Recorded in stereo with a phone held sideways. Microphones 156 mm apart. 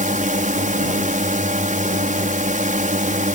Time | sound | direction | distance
0.0 | a drone | 55° right (ahead or behind) | ?